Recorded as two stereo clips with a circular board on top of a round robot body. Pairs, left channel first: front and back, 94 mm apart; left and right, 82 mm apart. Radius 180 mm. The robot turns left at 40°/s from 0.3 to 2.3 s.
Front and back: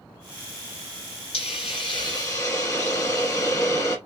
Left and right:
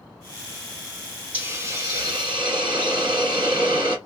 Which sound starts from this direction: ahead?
A hiss, at 1.3 s.